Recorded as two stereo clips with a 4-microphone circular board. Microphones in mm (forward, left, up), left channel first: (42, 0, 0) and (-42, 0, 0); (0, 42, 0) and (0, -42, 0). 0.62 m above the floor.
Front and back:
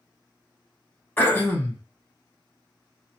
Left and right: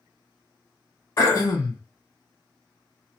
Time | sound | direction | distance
1.2 | throat clearing | 60° left | 1.8 m